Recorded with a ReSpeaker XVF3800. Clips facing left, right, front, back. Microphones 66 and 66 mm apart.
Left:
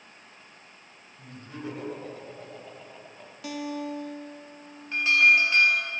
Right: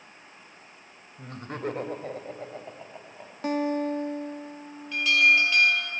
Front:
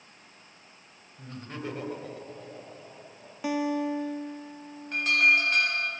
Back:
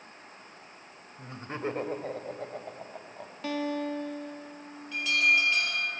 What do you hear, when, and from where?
1.2 s laughter: 110° right, 2.5 m; by 3.3 s 160° right, 3 m
3.4 s a guitar: 70° right, 0.9 m
4.9 s an alarm: 35° left, 4 m